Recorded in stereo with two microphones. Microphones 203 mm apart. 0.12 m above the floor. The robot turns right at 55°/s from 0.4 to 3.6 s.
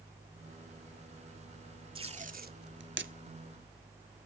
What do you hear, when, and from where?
1.9 s tape being pulled: 25° right (ahead or behind), 0.5 m; by 3.1 s 65° right (ahead or behind), 0.5 m